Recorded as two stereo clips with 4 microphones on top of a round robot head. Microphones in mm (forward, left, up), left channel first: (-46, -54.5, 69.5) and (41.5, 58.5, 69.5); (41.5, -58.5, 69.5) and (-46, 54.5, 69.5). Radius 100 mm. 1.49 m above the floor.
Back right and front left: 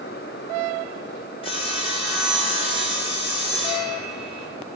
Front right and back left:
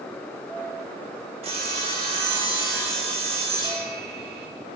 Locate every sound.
1.4 s sawing: straight behind, 5 m